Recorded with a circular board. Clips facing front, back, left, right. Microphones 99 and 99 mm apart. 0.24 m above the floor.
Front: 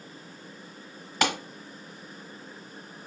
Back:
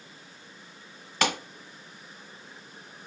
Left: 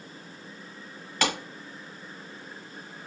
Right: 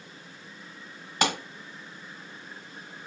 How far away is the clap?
About 1.2 m.